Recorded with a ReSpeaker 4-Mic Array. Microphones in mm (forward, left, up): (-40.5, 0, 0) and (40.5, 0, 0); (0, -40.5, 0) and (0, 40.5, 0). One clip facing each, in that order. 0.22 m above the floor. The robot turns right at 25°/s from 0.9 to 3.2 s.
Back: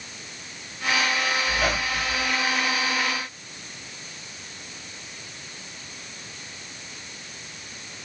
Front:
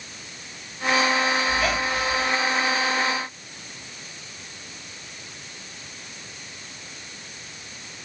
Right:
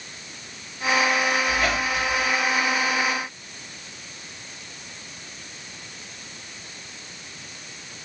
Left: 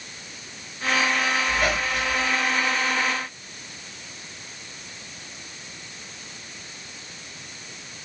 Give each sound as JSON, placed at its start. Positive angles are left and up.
{"t": 1.5, "sound": "a squeak", "azimuth_deg": 165, "distance_m": 2.5}